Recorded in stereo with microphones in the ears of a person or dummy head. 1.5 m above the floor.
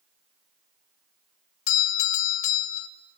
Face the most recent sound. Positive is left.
turn(degrees=45)  # may be behind; listen again after turning